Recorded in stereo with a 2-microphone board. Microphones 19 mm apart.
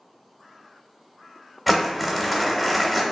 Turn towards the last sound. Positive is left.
turn(degrees=-10)  # may be behind; listen again after turning